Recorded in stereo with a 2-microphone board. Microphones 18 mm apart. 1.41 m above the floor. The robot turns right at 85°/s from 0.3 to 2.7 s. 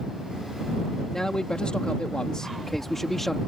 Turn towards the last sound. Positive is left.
turn(degrees=160)